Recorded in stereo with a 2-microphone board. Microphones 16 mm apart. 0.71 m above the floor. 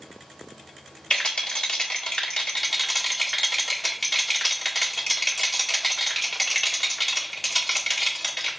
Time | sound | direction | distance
1.1 | a rattle | 45° left (ahead or behind) | 1.7 m